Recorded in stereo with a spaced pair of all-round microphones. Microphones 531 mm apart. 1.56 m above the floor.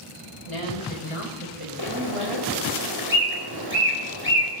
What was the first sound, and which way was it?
A woman speaking, 85° left.